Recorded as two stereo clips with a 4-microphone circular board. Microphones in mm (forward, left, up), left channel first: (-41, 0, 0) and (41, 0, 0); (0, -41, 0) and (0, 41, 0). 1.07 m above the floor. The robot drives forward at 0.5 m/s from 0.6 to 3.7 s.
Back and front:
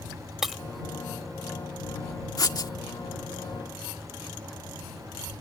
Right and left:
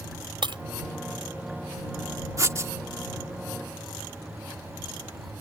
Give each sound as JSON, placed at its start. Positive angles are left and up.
{"t": 0.4, "sound": "breaking glass", "azimuth_deg": 85}
{"t": 2.4, "sound": "writing", "azimuth_deg": 140}